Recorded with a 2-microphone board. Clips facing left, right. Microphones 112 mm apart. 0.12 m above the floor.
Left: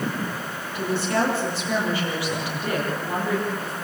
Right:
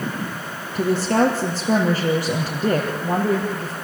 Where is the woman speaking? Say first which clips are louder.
Right 5 dB; 40° right (ahead or behind), 4 m.